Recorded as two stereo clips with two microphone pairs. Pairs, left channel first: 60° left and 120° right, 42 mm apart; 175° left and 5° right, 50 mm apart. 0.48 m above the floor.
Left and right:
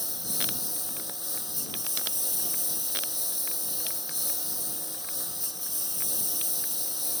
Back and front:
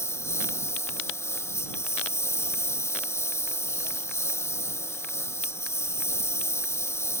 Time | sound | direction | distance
0.0 | a lawn mower | 150° left | ?